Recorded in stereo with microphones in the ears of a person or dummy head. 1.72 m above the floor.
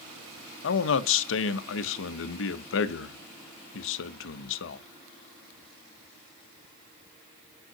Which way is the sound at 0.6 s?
75° left (ahead or behind).